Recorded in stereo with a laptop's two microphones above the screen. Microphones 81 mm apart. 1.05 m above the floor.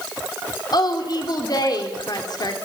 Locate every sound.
0.7 s a woman speaking: 55° left (ahead or behind), 3.5 m